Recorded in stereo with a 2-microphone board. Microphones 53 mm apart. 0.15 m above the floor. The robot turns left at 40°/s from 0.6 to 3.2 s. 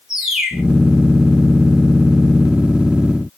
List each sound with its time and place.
0.1 s a bird: 10° right (ahead or behind), 1.3 m